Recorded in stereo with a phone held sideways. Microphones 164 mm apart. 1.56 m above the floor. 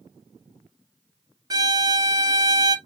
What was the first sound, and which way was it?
A violin, 25° right (ahead or behind).